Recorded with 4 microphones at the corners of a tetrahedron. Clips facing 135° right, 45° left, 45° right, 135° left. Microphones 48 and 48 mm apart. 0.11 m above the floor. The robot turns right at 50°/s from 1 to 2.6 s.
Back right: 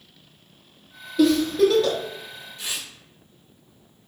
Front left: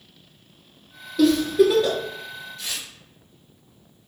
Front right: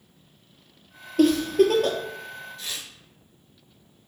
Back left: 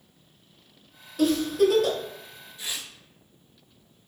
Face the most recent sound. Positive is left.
turn(degrees=180)